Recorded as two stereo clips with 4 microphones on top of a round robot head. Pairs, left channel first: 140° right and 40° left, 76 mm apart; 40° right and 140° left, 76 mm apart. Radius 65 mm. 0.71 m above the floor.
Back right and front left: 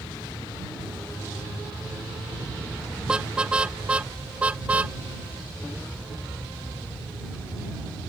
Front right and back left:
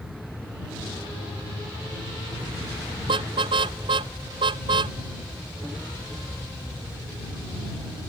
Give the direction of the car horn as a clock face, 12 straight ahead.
8 o'clock.